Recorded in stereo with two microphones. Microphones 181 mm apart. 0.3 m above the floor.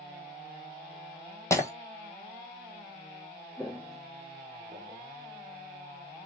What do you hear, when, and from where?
1.5 s breaking glass: 15° left (ahead or behind), 1.0 m
3.6 s footsteps: 5° left (ahead or behind), 0.6 m; by 5.6 s 50° right (ahead or behind), 2.5 m